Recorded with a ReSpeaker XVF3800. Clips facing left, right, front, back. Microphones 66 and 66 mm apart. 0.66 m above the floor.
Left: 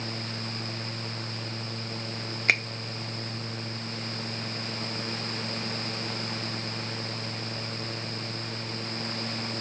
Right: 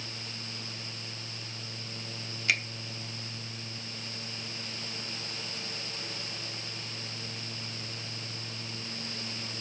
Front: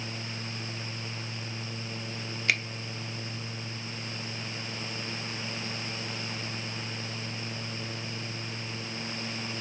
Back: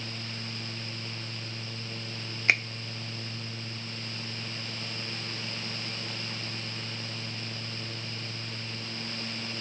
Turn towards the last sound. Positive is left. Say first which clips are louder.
# left 4 dB, back 3 dB
turn(degrees=125)